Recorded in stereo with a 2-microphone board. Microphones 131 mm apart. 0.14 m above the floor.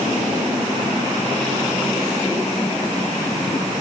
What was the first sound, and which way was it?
Only background noise.